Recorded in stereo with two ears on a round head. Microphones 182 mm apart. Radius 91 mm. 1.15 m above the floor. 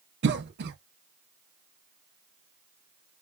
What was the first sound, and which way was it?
A cough, 55° right (ahead or behind).